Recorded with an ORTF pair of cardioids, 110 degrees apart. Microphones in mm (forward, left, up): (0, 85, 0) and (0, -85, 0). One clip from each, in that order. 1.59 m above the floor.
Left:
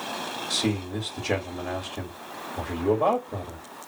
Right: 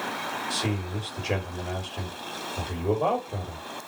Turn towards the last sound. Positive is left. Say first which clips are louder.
# left 2 dB
turn(degrees=20)